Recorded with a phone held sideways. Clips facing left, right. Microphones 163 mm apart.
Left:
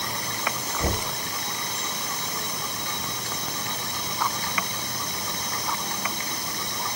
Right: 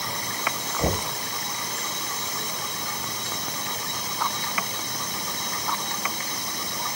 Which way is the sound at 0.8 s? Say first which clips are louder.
Right 3 dB; 25° right (ahead or behind).